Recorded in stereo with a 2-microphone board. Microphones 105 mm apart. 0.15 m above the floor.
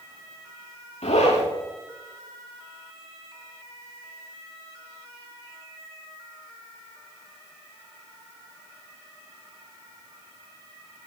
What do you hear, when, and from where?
1.0 s a zipper: 80° left, 4.5 m